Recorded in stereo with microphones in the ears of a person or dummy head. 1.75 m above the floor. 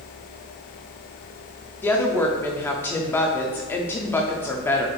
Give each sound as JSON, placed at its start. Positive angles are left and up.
{"t": 1.8, "sound": "a woman speaking", "side_deg": 10, "distance_m": 0.5}